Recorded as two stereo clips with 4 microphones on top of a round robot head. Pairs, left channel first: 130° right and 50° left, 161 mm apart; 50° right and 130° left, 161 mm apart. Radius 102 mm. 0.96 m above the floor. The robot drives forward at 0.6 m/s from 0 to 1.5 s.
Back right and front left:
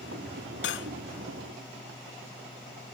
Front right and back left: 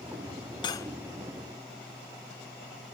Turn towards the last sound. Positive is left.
turn(degrees=-145)